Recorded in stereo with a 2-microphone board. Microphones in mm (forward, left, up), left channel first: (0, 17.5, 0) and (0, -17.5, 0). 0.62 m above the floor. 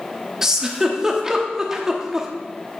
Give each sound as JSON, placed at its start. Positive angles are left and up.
{"t": 0.4, "sound": "a giggle", "side_deg": -15, "distance_m": 0.8}